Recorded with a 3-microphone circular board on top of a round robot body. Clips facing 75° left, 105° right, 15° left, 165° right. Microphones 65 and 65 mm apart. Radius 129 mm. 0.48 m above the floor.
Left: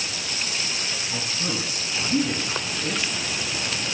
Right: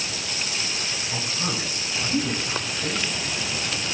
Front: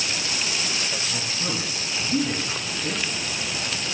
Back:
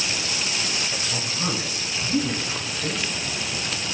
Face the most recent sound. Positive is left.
turn(degrees=-150)